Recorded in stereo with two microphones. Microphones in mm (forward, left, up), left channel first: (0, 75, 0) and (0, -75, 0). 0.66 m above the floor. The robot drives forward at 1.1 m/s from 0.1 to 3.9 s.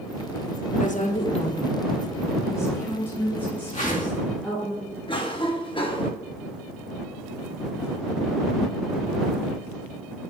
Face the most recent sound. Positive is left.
turn(degrees=35)  # may be behind; listen again after turning